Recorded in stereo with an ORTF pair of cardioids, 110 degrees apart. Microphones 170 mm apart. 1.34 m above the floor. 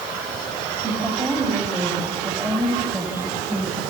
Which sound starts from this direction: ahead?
A woman speaking, at 0.8 s.